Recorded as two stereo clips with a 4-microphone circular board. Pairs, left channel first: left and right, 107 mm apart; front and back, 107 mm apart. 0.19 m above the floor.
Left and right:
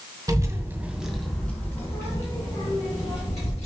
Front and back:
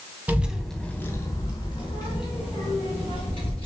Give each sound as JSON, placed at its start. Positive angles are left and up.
{"t": 0.3, "sound": "a child speaking", "azimuth_deg": -115, "distance_m": 0.7}